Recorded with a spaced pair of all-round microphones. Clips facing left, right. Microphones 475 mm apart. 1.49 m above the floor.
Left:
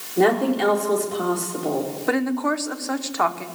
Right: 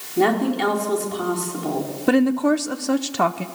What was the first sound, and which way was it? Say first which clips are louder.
A woman speaking: left 1 dB; 25° right (ahead or behind).